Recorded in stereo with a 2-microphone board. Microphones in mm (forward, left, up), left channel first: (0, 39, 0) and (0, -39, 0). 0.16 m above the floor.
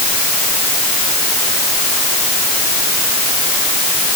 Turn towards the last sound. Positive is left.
No sound to turn to.